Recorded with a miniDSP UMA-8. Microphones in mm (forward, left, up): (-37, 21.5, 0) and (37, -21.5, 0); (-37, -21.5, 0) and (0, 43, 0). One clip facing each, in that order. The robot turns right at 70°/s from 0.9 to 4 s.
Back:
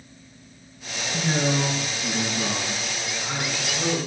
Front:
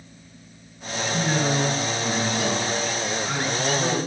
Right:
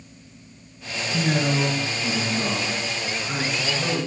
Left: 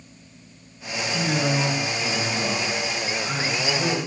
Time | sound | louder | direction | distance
1.1 | a man speaking | even, right 1 dB | 110° right | 3 m